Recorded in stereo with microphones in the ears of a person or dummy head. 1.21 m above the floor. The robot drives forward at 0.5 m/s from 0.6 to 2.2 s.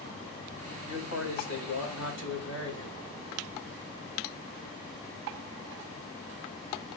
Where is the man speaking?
70° left (ahead or behind), 6 m; by 3.0 s 65° left (ahead or behind), 6.5 m.